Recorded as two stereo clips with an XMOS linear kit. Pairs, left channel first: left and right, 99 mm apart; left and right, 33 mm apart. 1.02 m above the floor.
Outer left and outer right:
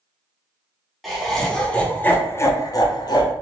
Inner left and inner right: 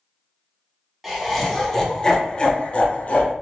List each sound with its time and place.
1.0 s laughter: centre (ahead or behind), 1.0 m; by 3.3 s 45° left (ahead or behind), 0.6 m